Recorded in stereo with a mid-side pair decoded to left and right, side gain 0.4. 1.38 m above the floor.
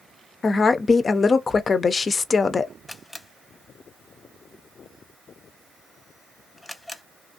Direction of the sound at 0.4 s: 40° left.